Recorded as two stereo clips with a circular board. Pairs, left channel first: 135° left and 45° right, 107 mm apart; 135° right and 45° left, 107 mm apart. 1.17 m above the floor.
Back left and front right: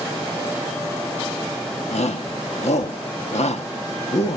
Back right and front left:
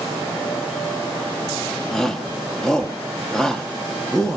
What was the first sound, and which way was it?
A shout, 140° left.